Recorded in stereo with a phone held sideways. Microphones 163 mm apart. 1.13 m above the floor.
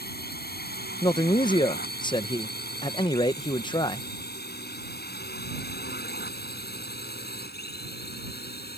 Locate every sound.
0.0 s a drone: 80° left; by 8.8 s 85° left
1.0 s a man speaking: 30° left (ahead or behind)